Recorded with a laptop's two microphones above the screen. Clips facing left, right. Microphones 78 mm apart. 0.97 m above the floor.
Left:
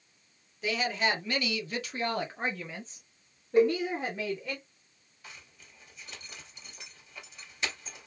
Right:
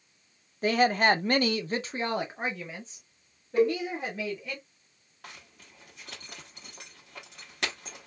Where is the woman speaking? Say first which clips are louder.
Right 7 dB; 45° right (ahead or behind), 0.7 m; by 4.6 s 10° left (ahead or behind), 1.7 m.